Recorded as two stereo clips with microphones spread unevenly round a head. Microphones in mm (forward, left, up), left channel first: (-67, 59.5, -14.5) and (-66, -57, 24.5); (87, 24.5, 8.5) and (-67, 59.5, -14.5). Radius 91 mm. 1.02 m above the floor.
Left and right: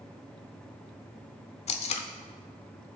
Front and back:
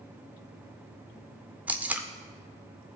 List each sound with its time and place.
1.7 s tape being pulled: 80° left, 0.7 m